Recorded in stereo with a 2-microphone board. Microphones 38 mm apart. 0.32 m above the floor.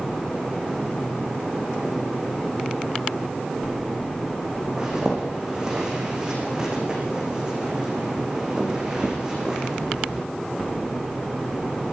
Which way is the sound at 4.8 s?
15° right (ahead or behind).